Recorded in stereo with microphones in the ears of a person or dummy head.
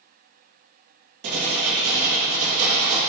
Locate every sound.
1.2 s writing: 55° right (ahead or behind), 2 m